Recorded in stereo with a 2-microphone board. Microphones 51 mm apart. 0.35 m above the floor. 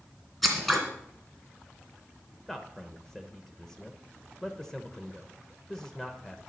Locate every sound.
0.4 s scissors: centre (ahead or behind), 2.5 m
2.5 s a man speaking: 10° left (ahead or behind), 0.9 m